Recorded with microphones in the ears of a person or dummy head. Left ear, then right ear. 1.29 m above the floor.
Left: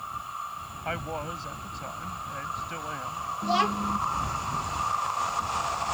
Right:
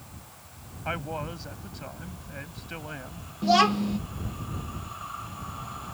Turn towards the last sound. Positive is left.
turn(degrees=-20)  # may be behind; listen again after turning